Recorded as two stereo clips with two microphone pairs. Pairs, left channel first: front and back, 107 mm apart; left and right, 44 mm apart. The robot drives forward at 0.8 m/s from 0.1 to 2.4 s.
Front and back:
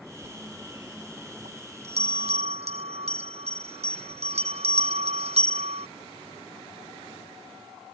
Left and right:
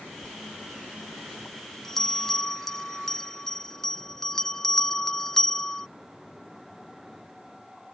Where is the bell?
160° left; by 5.9 s 165° left.